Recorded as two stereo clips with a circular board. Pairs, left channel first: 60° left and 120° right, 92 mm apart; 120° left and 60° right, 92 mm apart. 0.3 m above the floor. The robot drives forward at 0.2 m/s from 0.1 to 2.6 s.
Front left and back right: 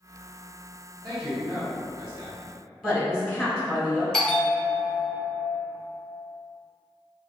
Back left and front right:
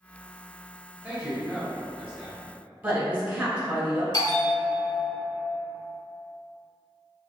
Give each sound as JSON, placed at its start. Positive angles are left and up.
{"t": 1.0, "sound": "a man speaking", "azimuth_deg": -125, "distance_m": 1.6}
{"t": 2.8, "sound": "a woman speaking", "azimuth_deg": -45, "distance_m": 1.2}
{"t": 4.1, "sound": "a bell", "azimuth_deg": 140, "distance_m": 0.6}